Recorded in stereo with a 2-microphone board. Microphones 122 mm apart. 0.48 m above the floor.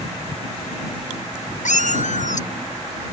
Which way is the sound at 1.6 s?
80° left.